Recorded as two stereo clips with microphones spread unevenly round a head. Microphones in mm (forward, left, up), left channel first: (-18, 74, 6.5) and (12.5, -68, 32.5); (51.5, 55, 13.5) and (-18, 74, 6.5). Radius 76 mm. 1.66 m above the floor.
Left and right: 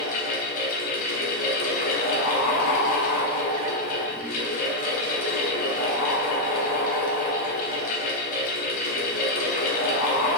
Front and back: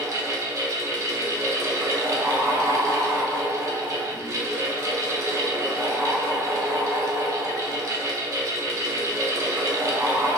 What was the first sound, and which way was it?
A fan, 125° left.